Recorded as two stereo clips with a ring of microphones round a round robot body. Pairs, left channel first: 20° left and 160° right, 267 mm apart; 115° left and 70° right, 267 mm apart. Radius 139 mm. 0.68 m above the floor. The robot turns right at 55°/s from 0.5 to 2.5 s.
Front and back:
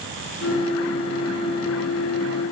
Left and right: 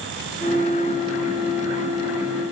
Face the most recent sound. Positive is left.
No sound to turn to.